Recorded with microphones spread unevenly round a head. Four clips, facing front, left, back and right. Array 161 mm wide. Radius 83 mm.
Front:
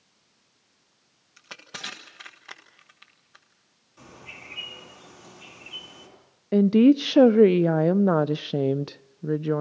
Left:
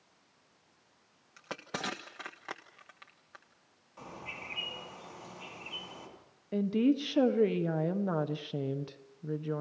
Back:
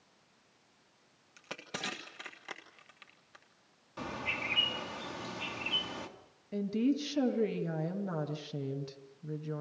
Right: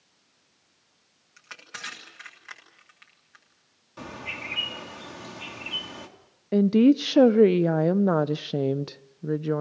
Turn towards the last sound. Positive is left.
turn(degrees=-35)